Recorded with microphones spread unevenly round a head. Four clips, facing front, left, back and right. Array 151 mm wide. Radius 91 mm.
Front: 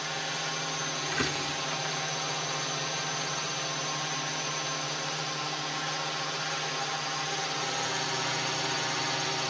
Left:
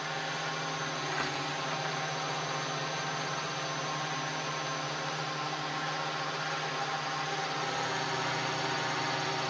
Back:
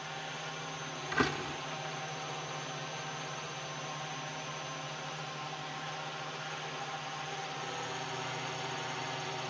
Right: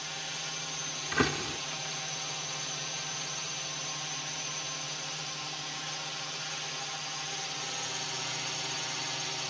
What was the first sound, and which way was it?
A drone, 45° left.